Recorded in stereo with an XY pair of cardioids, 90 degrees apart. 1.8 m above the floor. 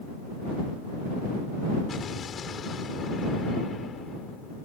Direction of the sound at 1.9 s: 55° left.